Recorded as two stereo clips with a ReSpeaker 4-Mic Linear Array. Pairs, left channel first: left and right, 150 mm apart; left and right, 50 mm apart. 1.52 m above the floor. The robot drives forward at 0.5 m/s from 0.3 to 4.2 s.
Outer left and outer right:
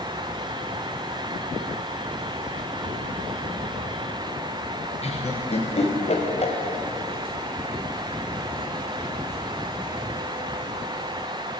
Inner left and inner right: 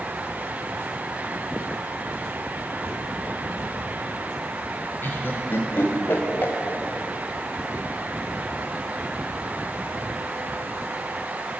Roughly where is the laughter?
Left.